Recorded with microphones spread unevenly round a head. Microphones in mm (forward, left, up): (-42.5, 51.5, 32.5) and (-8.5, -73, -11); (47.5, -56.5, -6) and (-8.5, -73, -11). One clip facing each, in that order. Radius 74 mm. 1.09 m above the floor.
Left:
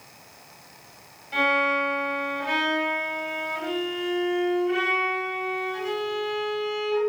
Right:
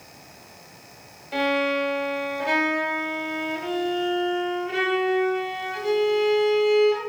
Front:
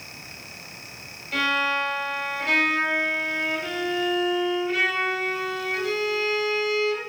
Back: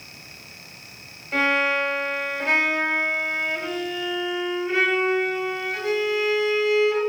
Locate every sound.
1.3 s a violin: 105° right, 5 m